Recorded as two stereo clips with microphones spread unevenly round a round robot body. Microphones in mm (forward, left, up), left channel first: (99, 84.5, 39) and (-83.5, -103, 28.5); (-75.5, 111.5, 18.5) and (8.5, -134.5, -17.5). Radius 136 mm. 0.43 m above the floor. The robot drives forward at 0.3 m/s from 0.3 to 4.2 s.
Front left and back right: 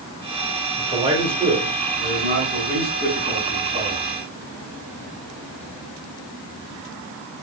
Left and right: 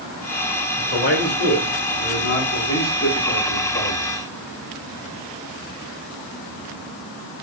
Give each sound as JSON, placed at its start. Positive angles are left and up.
{"t": 0.8, "sound": "a man speaking", "azimuth_deg": 155, "distance_m": 1.5}